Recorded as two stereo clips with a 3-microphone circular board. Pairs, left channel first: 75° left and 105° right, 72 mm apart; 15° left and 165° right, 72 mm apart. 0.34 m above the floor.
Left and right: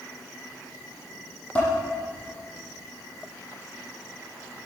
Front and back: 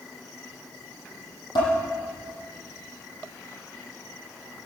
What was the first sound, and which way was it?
Dishes clattering, 5° left.